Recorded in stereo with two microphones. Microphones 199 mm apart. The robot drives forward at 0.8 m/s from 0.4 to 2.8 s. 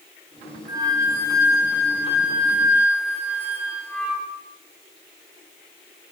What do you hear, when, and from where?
0.7 s a flute: 20° right (ahead or behind), 0.9 m; by 4.3 s 10° right (ahead or behind), 2 m